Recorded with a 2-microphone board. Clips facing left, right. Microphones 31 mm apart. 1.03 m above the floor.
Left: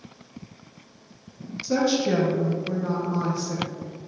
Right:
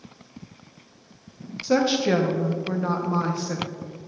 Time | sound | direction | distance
1.6 | a woman speaking | 45° right (ahead or behind) | 1.0 m